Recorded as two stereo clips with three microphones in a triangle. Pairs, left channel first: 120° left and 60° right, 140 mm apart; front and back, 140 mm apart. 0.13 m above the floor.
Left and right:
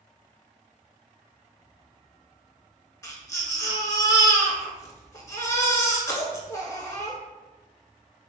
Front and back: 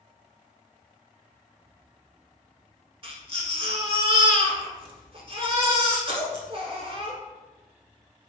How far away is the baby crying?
About 0.6 m.